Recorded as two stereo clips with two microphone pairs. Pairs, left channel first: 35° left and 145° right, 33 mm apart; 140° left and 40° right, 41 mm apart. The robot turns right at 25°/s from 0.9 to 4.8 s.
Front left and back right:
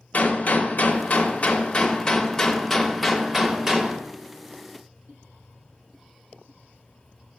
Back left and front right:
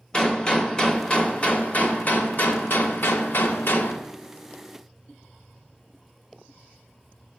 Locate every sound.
0.1 s a gunshot: 75° left, 0.8 m; by 4.0 s 150° left, 0.8 m